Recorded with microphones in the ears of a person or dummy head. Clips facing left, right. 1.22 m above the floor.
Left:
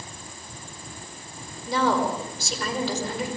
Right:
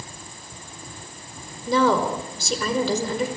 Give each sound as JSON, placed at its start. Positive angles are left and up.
{"t": 1.7, "sound": "a woman speaking", "side_deg": -70, "distance_m": 4.5}